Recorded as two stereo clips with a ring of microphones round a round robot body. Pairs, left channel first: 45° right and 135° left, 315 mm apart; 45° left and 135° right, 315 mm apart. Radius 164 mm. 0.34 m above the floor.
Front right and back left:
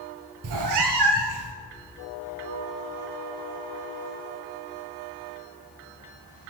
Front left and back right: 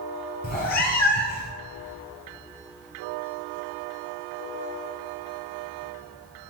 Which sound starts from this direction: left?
A cat meowing, at 0.4 s.